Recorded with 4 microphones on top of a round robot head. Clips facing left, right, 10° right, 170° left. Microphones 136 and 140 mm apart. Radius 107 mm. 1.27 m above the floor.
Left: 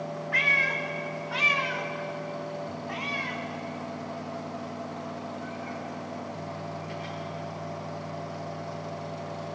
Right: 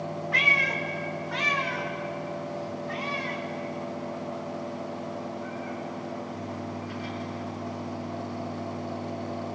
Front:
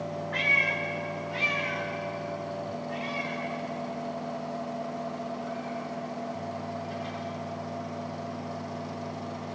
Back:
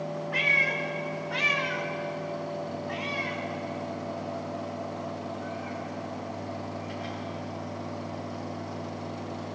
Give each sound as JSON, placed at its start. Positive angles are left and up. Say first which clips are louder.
{"t": 0.3, "sound": "a cat meowing", "louder": "right 2 dB, back 1 dB", "azimuth_deg": -110, "distance_m": 1.0}